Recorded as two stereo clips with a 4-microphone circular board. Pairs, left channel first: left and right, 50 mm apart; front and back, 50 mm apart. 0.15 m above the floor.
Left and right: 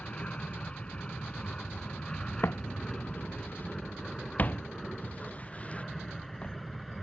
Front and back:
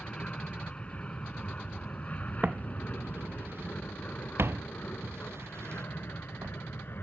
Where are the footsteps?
125° left; by 6.6 s 155° left.